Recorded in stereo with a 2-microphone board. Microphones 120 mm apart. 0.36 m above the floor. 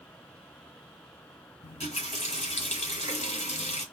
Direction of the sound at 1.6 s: 70° left (ahead or behind).